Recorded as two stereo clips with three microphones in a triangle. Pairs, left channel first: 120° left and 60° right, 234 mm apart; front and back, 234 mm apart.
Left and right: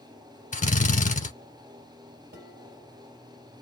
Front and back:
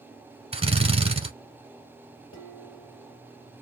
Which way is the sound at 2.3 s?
20° right.